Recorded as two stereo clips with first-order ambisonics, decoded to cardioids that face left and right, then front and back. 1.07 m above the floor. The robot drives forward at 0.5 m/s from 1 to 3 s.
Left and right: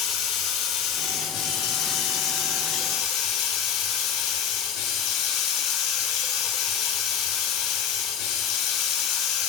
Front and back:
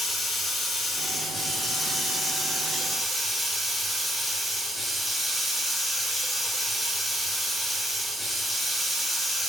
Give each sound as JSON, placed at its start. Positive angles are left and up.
{"t": 0.0, "sound": "running water", "azimuth_deg": 70, "distance_m": 4.5}